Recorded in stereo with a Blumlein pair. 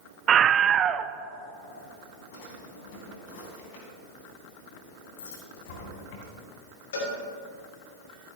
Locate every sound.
0.3 s a scream: 25° right, 0.6 m
2.3 s a drawer: 50° left, 3.5 m
5.2 s a dropped coin: 50° left, 4 m
6.9 s a cowbell: 60° left, 3 m